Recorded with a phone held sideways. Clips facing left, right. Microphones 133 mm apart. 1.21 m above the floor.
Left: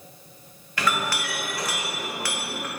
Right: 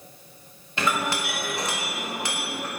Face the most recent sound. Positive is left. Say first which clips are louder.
# right 1 dB
turn(degrees=-25)  # may be behind; listen again after turning